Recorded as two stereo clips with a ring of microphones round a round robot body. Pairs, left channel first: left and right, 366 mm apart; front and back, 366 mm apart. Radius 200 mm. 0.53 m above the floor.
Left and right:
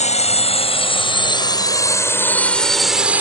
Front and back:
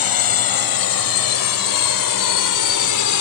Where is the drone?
20° left; by 3.2 s 5° right.